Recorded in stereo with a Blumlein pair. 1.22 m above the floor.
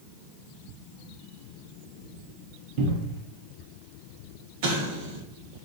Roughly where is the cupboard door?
Ahead right.